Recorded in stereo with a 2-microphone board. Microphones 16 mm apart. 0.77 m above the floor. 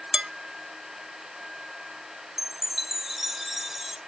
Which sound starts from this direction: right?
Dishes clattering, at 0.1 s.